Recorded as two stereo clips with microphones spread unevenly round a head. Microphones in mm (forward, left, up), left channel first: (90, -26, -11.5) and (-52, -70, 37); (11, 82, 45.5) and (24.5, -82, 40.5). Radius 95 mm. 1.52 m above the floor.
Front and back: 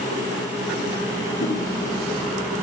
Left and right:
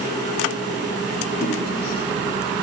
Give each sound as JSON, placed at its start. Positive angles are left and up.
{"t": 1.4, "sound": "a whoosh", "azimuth_deg": 50, "distance_m": 2.5}